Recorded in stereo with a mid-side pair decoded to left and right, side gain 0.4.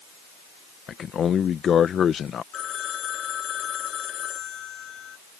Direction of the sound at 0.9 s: 60° left.